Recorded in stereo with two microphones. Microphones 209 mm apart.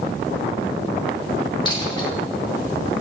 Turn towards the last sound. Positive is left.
turn(degrees=20)  # may be behind; listen again after turning